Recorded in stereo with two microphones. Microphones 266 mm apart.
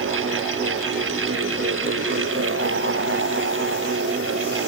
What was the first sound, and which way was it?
Only background noise.